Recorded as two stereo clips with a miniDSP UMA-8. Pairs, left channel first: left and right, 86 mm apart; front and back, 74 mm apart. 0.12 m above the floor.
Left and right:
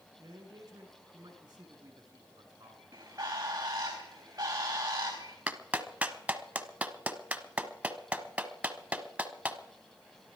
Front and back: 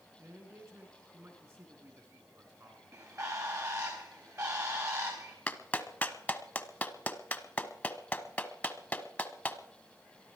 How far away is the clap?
About 1.1 m.